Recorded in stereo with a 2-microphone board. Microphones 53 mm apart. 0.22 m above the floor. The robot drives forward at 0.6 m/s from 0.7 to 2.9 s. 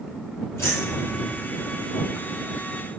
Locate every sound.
0.6 s keys jangling: 50° left (ahead or behind), 3.5 m; by 1.4 s 55° left (ahead or behind), 3.5 m